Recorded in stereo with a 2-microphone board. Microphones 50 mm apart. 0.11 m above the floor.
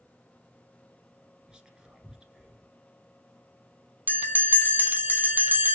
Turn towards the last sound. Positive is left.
turn(degrees=-40)  # may be behind; listen again after turning